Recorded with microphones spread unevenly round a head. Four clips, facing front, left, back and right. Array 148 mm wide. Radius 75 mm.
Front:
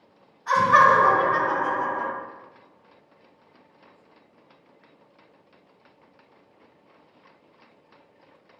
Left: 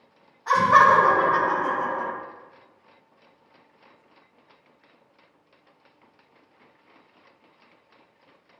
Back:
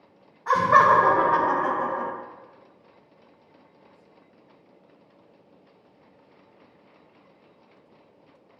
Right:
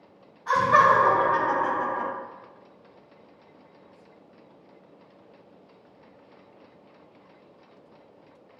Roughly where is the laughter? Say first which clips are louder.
Left 3 dB, even; behind.